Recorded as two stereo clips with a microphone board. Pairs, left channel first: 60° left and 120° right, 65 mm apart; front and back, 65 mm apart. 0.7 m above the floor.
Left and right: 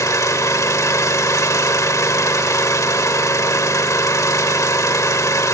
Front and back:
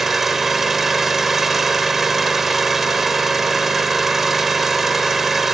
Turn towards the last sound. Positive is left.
turn(degrees=95)